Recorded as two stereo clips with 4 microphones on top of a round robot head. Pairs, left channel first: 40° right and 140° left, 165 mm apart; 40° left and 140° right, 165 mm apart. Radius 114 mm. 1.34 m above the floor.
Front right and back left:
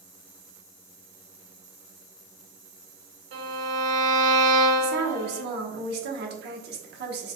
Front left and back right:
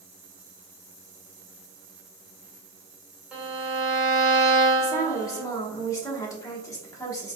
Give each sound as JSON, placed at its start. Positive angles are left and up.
{"t": 3.3, "sound": "a violin", "azimuth_deg": 135, "distance_m": 1.6}
{"t": 4.8, "sound": "a woman speaking", "azimuth_deg": 115, "distance_m": 1.1}